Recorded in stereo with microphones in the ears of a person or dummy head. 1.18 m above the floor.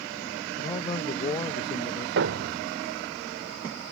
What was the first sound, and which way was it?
A man speaking, 25° left (ahead or behind).